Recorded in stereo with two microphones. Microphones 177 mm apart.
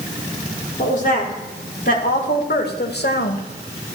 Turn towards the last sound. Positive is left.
turn(degrees=60)  # may be behind; listen again after turning